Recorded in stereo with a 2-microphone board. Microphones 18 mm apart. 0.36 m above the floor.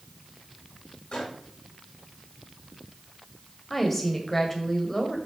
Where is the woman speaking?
15° left (ahead or behind), 1.8 m.